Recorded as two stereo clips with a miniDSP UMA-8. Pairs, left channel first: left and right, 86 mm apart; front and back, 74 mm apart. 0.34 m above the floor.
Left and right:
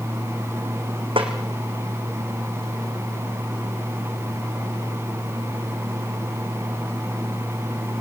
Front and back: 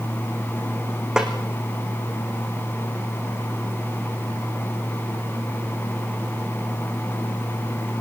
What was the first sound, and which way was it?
A snare drum, 100° right.